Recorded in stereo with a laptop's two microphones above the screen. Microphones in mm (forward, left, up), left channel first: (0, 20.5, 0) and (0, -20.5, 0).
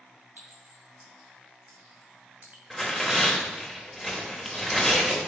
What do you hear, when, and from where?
0.4 s a clink: 60° right (ahead or behind), 1.5 m
2.7 s tearing paper: centre (ahead or behind), 0.8 m